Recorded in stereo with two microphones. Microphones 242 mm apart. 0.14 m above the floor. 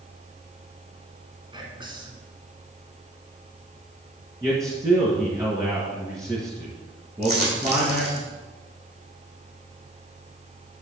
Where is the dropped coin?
40° right (ahead or behind), 3 m.